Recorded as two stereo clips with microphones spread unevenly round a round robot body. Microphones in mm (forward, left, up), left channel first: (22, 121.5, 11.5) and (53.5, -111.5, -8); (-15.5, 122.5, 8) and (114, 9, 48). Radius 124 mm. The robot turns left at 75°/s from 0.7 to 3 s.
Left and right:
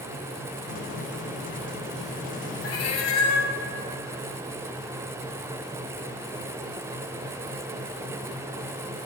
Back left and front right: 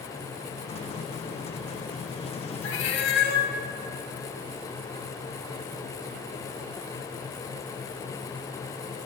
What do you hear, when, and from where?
2.6 s a cat meowing: 130° left, 0.8 m; by 3.5 s 105° left, 0.8 m